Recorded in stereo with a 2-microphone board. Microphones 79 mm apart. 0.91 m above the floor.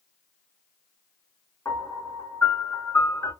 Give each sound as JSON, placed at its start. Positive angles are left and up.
{"t": 1.6, "sound": "a piano", "side_deg": 35, "distance_m": 2.0}